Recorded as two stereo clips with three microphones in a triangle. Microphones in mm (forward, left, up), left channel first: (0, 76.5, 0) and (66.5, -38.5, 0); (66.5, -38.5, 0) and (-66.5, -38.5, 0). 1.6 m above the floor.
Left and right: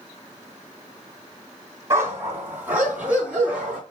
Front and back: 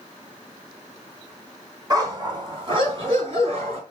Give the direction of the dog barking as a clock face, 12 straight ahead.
4 o'clock.